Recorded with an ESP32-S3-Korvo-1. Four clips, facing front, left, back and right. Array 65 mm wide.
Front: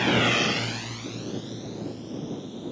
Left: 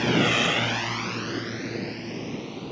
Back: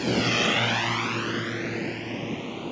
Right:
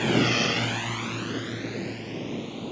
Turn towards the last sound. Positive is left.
turn(degrees=175)